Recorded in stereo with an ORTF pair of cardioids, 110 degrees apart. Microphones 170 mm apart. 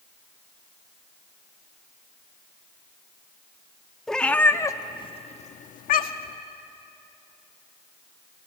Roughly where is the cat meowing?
Ahead.